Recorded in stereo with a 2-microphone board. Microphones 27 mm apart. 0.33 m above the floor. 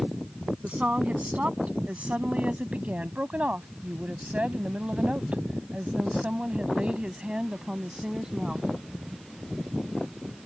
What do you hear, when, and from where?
0.6 s a woman speaking: 55° right (ahead or behind); by 8.7 s 25° right (ahead or behind)